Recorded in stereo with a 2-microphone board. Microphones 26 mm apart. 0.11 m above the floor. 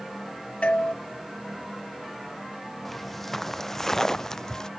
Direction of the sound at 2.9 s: 5° left (ahead or behind).